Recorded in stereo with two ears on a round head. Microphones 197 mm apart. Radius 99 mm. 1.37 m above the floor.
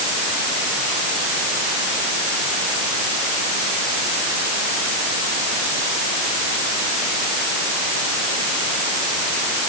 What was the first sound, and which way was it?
Only background noise.